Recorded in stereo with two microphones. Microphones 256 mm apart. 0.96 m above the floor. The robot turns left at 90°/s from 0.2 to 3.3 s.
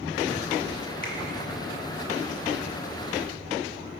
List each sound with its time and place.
1.0 s a finger snap: 35° left (ahead or behind), 1.1 m; by 1.1 s 25° left (ahead or behind), 1.1 m